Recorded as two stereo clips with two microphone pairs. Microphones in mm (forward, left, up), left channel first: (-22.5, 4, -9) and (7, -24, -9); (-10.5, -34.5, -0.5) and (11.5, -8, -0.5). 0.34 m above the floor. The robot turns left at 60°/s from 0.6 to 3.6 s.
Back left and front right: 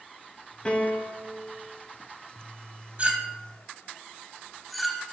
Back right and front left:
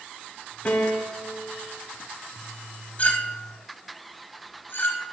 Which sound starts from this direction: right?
A clink, at 3.0 s.